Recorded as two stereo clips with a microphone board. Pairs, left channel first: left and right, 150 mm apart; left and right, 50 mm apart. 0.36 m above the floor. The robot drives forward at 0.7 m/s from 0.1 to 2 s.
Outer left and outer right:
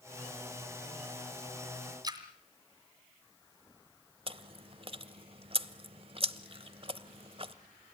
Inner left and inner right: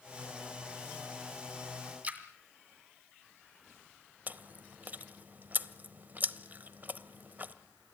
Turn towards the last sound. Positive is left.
turn(degrees=-40)  # may be behind; listen again after turning